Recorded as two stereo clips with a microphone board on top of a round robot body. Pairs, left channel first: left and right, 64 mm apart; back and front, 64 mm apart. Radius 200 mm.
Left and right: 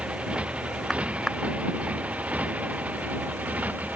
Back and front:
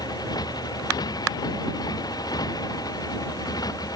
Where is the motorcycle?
165° right; by 4.0 s 155° right.